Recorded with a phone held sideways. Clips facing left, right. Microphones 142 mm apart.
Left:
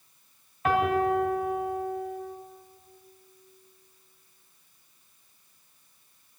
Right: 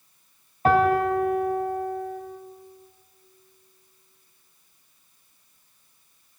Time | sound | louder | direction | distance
0.7 | a piano | right 4 dB | 35° right (ahead or behind) | 3 m